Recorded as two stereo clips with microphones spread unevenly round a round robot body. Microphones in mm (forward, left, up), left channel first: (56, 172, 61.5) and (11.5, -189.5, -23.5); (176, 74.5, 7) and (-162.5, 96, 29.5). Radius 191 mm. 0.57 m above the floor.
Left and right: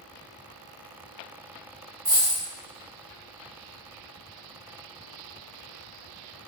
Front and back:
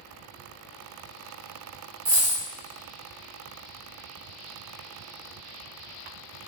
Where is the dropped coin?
155° right, 1.3 m.